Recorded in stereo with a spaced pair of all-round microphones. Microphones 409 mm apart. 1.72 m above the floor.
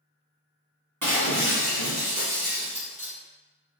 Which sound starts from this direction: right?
Breaking glass, at 1.0 s.